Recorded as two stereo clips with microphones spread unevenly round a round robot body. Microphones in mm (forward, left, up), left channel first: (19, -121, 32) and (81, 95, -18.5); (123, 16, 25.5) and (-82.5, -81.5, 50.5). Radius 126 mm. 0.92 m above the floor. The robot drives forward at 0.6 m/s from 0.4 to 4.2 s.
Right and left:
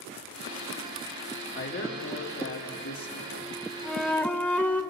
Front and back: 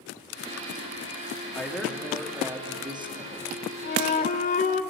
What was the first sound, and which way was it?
A man speaking, 60° right.